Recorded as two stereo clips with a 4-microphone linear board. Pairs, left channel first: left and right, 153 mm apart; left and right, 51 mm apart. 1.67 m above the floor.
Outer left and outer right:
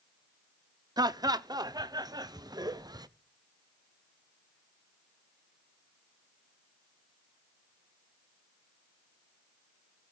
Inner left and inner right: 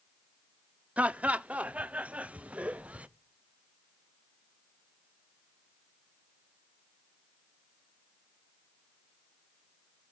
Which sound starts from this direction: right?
Laughter, at 1.0 s.